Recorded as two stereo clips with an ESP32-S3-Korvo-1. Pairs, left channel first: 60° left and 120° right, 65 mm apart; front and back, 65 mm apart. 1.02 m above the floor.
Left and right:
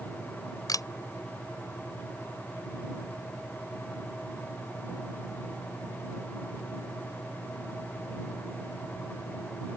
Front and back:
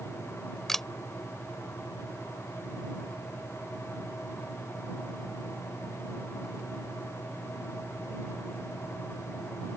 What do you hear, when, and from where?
0.7 s a camera shutter: 85° left